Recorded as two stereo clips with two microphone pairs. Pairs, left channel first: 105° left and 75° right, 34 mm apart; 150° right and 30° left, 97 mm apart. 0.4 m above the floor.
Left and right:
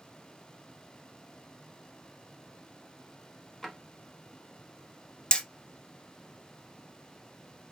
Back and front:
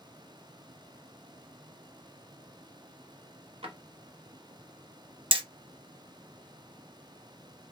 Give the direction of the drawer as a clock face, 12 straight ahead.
11 o'clock.